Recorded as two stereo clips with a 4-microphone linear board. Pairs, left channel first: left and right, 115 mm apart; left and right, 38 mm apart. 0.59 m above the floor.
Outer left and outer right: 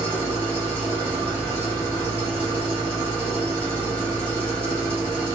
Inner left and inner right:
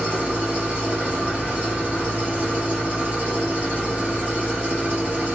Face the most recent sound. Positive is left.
turn(degrees=-45)  # may be behind; listen again after turning